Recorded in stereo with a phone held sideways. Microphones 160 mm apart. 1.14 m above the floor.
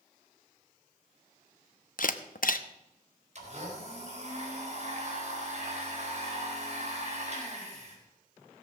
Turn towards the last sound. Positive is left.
turn(degrees=-45)  # may be behind; listen again after turning